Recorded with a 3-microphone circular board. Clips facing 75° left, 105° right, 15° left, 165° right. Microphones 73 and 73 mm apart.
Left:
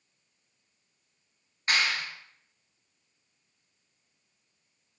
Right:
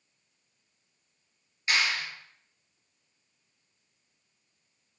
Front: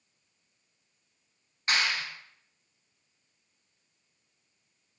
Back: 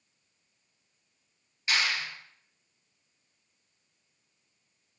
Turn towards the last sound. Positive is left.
turn(degrees=45)